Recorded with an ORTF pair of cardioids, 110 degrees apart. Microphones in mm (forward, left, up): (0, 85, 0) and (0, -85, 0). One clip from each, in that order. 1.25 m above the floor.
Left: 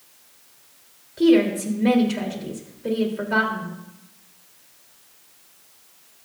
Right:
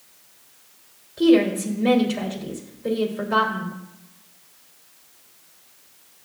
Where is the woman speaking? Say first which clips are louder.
Even; 5° left, 2.5 m.